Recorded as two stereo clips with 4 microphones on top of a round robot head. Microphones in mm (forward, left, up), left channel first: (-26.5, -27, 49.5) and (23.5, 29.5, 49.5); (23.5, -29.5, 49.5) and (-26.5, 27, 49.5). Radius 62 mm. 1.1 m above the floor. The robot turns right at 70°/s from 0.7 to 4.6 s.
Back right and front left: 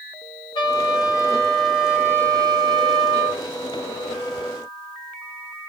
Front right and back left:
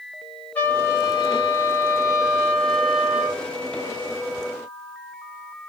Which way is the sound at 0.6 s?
115° right.